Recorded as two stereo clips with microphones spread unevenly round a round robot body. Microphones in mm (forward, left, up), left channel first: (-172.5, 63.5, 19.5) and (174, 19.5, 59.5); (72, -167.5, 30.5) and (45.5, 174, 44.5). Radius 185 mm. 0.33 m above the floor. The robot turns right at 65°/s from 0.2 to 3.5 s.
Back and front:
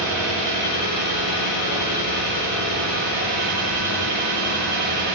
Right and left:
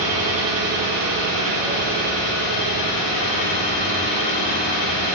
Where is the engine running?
90° left, 1.7 m; by 5.2 s 60° right, 1.7 m.